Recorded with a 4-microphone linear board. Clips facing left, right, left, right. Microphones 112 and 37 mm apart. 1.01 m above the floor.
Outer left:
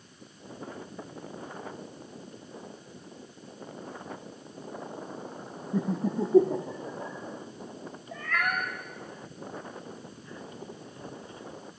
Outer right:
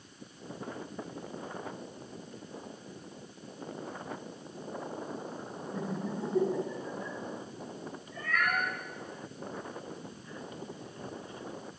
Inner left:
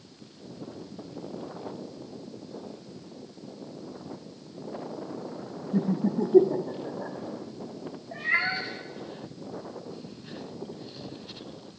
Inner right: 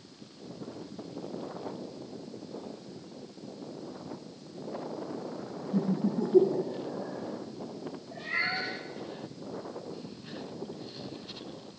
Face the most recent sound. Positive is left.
turn(degrees=80)